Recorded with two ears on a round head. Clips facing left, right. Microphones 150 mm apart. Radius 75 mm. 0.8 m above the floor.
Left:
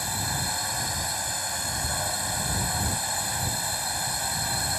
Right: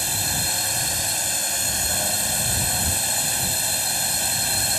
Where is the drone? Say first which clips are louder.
Right 1 dB; 35° right (ahead or behind).